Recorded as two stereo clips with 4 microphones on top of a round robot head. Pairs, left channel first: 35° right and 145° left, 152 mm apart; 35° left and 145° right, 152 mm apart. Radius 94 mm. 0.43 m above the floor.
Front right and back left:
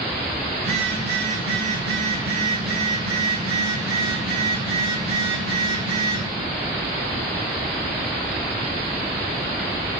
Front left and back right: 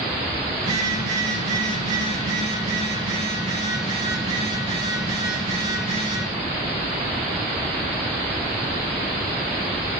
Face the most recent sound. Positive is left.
turn(degrees=160)